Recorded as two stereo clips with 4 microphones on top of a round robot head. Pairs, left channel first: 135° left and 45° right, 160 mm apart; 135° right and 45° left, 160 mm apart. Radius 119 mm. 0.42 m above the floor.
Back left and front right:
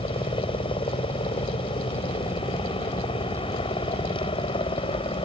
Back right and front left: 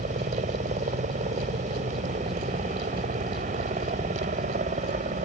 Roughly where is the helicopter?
Left.